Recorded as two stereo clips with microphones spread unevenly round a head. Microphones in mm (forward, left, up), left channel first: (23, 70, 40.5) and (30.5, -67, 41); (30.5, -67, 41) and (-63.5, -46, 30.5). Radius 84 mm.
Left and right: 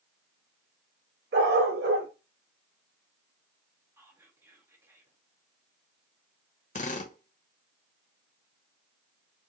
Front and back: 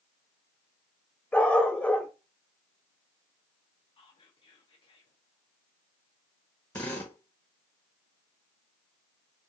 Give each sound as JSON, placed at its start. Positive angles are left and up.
{"t": 1.3, "sound": "a dog barking", "azimuth_deg": -90, "distance_m": 1.8}
{"t": 4.0, "sound": "whispering", "azimuth_deg": -20, "distance_m": 1.0}
{"t": 6.8, "sound": "a drill", "azimuth_deg": 65, "distance_m": 1.2}